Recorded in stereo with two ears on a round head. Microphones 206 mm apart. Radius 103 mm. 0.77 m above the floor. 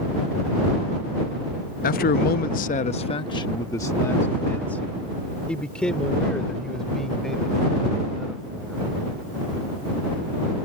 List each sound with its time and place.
1.8 s a man speaking: 35° left (ahead or behind); by 8.8 s centre (ahead or behind)